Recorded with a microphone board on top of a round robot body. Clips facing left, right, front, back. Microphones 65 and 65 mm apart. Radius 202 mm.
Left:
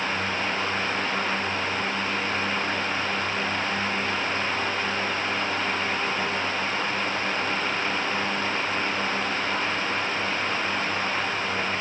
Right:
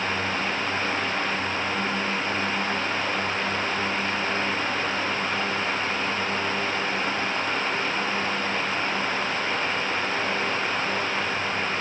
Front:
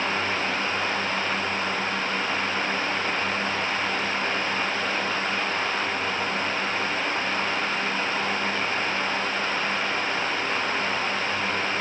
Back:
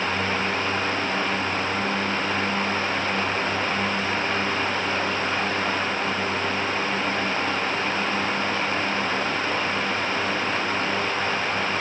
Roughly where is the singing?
No singing in this recording.